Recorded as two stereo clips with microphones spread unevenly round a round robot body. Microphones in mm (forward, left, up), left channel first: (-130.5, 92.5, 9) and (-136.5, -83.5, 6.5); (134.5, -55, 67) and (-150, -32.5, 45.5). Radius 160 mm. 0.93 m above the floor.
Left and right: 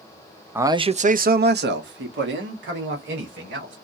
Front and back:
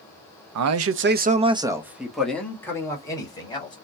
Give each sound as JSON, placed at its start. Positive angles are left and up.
{"t": 0.6, "sound": "a man speaking", "azimuth_deg": -170, "distance_m": 0.7}